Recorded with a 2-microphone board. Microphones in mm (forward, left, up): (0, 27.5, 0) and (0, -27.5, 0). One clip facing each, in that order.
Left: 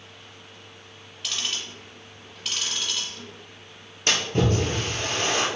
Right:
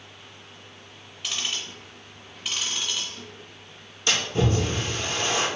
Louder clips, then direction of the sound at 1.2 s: Even; 5° right (ahead or behind).